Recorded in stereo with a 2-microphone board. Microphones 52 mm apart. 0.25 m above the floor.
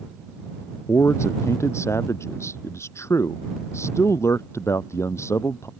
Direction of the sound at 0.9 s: 60° left (ahead or behind).